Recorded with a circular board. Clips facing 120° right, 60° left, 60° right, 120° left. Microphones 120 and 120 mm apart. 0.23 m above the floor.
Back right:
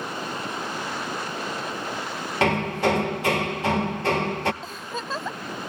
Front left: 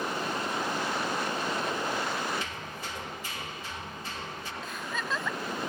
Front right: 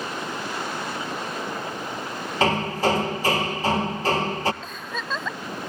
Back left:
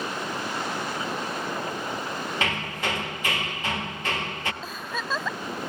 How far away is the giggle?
About 0.6 m.